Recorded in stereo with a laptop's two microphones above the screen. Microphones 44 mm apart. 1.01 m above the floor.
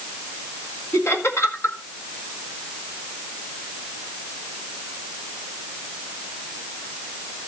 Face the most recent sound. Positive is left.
turn(degrees=65)  # may be behind; listen again after turning